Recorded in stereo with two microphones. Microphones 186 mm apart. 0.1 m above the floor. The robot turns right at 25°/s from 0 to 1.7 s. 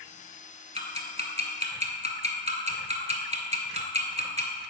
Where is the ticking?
40° right (ahead or behind), 0.9 m.